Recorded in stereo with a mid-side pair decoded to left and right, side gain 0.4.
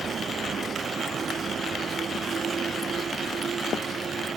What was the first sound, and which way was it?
A vehicle, 50° right.